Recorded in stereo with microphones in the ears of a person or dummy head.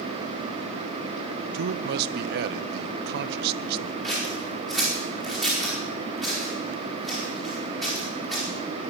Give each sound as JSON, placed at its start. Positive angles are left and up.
{"t": 1.5, "sound": "a man speaking", "side_deg": -60, "distance_m": 0.8}
{"t": 4.0, "sound": "scissors", "side_deg": 0, "distance_m": 5.0}